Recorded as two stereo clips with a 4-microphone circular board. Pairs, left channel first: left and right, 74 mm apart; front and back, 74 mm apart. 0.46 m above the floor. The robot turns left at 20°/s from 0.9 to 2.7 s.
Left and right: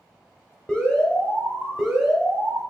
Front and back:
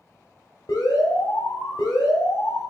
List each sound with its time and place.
0.7 s an alarm: 15° left, 0.9 m; by 2.6 s 20° right, 0.9 m